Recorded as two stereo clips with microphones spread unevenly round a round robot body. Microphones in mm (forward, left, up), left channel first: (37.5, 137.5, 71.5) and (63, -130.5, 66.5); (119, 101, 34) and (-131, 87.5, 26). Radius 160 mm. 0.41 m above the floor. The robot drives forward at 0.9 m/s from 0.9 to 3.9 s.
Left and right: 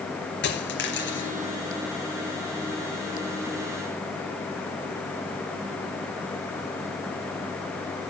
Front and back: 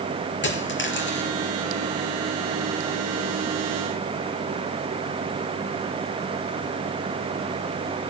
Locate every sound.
0.4 s a dropped coin: 45° left, 3.5 m; by 1.3 s 50° left, 3.5 m